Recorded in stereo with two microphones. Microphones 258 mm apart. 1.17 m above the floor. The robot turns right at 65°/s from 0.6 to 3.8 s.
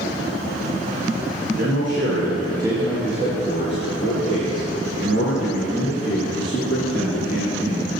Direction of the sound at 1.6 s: 85° right.